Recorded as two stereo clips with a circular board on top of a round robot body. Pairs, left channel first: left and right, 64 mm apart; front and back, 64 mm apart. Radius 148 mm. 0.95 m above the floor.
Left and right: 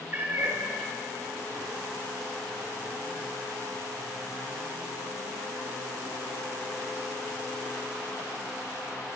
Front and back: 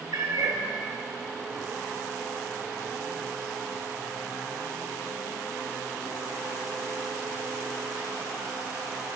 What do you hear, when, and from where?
0.1 s a cat meowing: 150° right, 2.5 m